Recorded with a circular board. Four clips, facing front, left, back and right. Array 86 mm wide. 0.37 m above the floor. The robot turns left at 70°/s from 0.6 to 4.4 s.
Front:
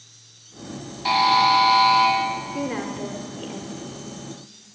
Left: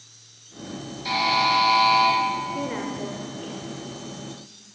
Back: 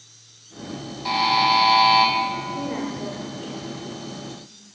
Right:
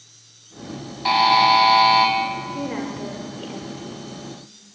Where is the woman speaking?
25° left, 0.9 m; by 4.2 s 85° right, 0.9 m.